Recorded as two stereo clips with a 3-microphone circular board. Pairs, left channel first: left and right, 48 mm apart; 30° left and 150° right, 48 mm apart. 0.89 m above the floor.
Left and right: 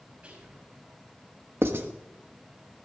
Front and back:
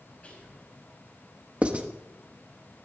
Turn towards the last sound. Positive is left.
turn(degrees=-90)